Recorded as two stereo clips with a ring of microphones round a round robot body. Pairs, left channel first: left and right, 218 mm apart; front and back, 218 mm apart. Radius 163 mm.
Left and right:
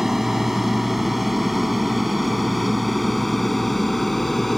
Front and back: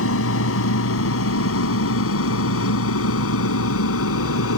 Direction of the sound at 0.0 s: Straight ahead.